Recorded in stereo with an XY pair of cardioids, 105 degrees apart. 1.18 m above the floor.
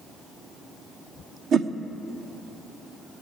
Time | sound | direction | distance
1.5 | a whoosh | 60° right | 0.7 m